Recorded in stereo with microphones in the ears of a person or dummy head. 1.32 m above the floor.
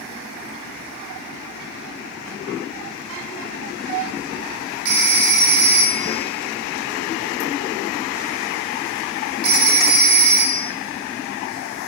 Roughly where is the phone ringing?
Right.